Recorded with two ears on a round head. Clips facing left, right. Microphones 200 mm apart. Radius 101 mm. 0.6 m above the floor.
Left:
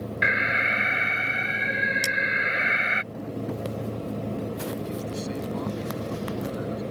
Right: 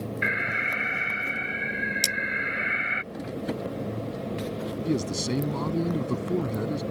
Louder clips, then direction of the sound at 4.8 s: Right 4 dB; 55° right (ahead or behind).